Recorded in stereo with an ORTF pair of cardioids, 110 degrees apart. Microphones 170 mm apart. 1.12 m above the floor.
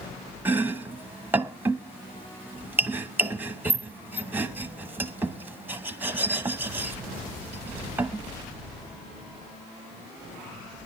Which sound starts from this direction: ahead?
Chopping, at 0.5 s.